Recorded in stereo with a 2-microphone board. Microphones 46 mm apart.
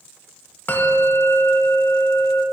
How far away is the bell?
About 0.9 m.